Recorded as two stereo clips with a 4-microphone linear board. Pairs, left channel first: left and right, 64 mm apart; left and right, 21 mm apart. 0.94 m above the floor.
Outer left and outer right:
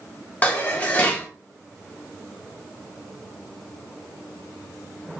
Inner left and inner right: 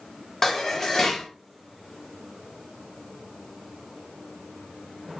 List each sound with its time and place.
0.4 s dishes clattering: 25° left (ahead or behind), 0.7 m